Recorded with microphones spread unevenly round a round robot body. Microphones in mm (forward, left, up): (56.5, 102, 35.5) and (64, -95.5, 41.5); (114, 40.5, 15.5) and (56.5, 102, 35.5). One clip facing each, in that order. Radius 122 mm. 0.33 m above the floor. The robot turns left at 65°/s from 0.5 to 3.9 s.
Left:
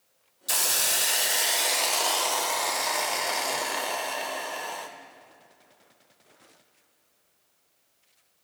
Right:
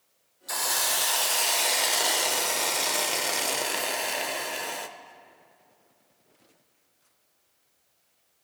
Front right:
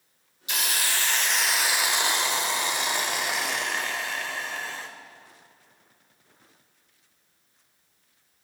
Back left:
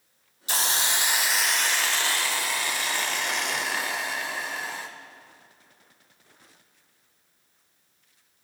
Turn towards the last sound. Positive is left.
turn(degrees=-135)